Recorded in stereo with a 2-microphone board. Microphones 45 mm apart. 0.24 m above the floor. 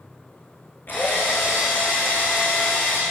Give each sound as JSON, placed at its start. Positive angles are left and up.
{"t": 0.9, "sound": "a drill", "side_deg": 45, "distance_m": 8.5}